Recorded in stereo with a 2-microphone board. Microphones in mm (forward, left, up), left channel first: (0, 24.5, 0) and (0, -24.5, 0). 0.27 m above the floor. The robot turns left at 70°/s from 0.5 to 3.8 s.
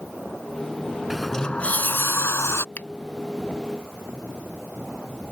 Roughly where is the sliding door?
Behind.